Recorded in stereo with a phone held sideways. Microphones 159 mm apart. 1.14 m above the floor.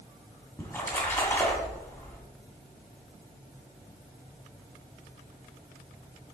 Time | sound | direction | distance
0.6 | a splash | 15° left (ahead or behind) | 1.9 m